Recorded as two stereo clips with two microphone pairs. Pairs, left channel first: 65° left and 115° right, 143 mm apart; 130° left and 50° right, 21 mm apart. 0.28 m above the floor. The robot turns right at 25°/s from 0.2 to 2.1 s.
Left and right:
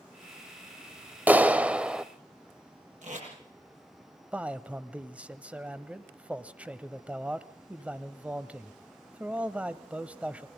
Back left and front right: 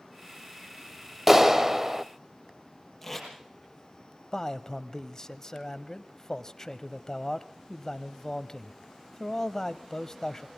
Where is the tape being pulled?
145° right, 8.5 m.